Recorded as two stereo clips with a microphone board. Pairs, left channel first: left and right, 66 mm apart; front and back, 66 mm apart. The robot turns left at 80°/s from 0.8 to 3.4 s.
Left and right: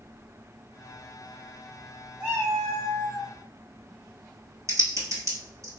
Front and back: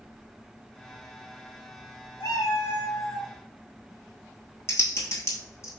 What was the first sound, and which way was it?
A cat meowing, 15° right.